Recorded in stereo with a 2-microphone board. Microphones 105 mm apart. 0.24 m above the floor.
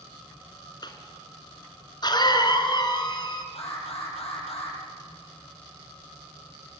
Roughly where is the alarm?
Left.